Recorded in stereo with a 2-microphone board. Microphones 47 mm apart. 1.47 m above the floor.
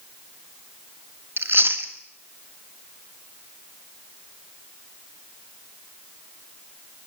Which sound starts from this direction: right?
Chewing, at 1.4 s.